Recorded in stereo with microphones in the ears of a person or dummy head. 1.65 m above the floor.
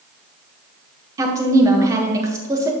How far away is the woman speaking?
About 1.4 m.